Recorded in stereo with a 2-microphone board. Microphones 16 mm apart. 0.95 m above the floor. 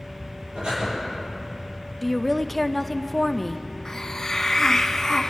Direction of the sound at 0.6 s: 85° right.